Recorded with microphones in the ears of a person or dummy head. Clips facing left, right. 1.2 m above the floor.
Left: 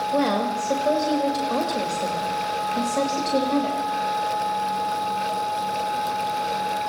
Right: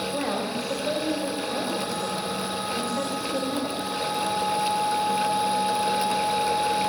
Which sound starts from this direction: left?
A woman speaking, at 0.1 s.